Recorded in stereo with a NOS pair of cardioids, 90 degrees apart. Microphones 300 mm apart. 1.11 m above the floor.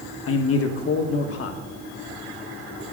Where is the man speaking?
55° left, 1.3 m.